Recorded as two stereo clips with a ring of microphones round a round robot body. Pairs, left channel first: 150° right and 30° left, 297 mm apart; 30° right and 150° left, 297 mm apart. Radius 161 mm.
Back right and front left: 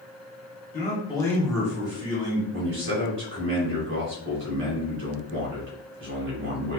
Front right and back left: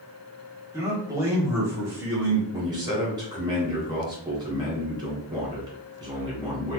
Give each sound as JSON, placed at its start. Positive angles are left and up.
{"t": 0.7, "sound": "a man speaking", "azimuth_deg": -140, "distance_m": 1.4}
{"t": 2.5, "sound": "a man speaking", "azimuth_deg": 75, "distance_m": 2.0}